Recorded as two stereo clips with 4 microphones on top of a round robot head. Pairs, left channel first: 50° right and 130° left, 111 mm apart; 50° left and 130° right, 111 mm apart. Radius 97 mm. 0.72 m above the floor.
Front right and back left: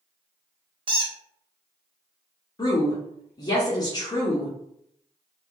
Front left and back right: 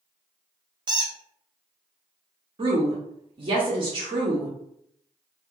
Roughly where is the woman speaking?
Right.